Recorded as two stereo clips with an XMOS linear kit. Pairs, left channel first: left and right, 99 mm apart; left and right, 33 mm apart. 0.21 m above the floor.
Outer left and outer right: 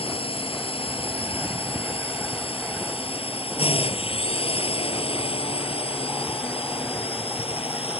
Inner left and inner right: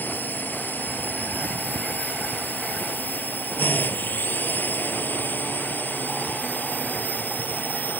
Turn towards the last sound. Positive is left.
turn(degrees=75)  # may be behind; listen again after turning